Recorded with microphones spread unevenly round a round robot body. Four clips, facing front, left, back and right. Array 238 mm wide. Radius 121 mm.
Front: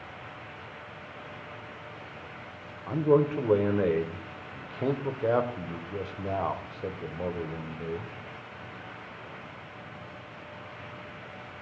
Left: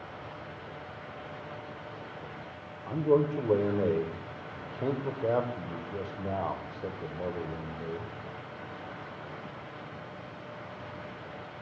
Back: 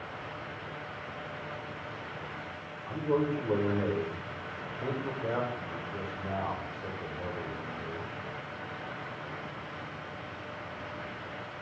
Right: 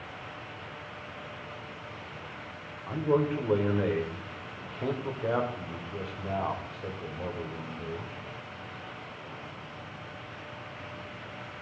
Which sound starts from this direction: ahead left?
A man speaking, at 2.9 s.